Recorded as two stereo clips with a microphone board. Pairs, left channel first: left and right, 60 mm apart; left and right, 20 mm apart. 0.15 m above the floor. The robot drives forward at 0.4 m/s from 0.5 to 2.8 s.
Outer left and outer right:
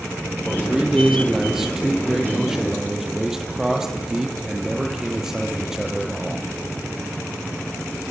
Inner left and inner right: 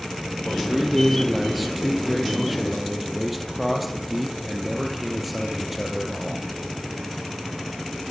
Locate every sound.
0.5 s a man speaking: 5° right (ahead or behind), 5 m